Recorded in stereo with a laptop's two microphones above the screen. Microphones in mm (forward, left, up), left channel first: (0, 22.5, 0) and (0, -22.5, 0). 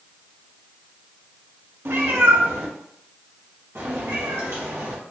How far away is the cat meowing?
About 0.6 m.